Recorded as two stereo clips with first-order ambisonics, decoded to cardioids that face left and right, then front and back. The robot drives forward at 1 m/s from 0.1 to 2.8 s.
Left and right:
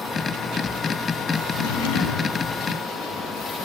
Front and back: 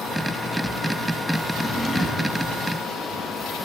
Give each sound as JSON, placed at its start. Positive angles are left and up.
{"t": 1.5, "sound": "a drawer", "azimuth_deg": 75, "distance_m": 3.5}